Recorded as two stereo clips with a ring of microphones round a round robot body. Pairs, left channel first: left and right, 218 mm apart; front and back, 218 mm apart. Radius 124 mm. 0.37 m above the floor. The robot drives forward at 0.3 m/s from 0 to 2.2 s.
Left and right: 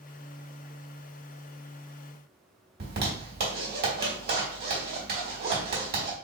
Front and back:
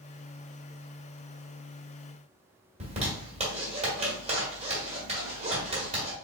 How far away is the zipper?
About 2 m.